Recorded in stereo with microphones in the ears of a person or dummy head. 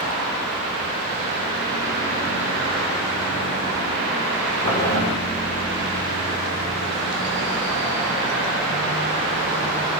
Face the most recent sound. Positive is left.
turn(degrees=30)  # may be behind; listen again after turning